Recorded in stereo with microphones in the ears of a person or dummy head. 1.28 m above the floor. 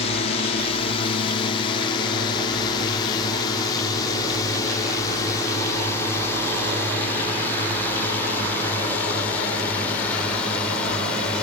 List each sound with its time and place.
0.0 s a drone: 40° left (ahead or behind); by 11.4 s 10° left (ahead or behind)